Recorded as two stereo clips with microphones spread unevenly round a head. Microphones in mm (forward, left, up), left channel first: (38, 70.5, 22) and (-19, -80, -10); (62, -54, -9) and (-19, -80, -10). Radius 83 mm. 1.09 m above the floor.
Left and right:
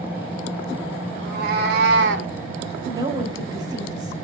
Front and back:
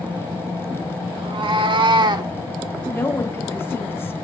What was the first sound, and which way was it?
A cat meowing, 150° right.